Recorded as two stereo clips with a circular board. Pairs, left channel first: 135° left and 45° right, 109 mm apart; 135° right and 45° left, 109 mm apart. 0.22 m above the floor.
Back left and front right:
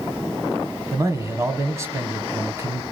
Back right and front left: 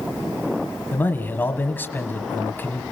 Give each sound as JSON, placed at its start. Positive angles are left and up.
{"t": 0.9, "sound": "a man speaking", "azimuth_deg": -80, "distance_m": 1.6}